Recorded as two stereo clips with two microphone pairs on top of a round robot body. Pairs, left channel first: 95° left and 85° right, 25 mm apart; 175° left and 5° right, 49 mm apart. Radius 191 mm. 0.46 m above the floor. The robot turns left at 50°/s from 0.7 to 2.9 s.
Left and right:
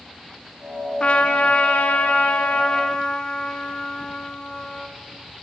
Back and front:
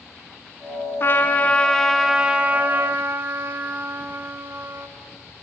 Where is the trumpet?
135° left, 0.9 m; by 4.9 s 40° left, 0.9 m.